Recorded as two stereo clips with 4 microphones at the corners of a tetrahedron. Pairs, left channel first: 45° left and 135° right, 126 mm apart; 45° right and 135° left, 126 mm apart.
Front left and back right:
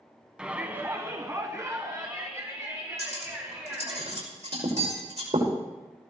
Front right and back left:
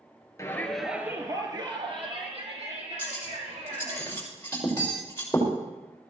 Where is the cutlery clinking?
115° right, 5.5 m.